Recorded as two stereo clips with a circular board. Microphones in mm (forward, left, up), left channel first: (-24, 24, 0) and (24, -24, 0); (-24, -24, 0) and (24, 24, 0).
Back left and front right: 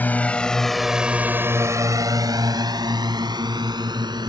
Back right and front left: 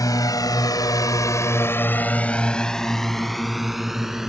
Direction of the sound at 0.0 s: 160° right.